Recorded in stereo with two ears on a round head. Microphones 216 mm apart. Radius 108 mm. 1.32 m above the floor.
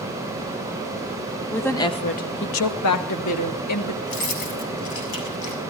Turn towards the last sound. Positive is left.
turn(degrees=85)